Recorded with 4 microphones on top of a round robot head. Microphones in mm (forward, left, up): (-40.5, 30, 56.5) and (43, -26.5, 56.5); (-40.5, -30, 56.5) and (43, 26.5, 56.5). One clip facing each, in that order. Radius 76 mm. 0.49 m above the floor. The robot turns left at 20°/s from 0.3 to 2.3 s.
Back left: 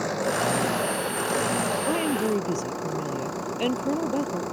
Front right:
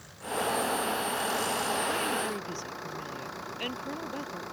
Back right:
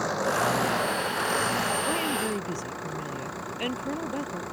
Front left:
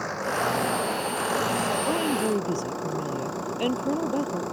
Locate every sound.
0.0 s an engine running: 135° left; by 4.5 s 95° left
1.9 s a woman speaking: 105° left; by 4.4 s 95° left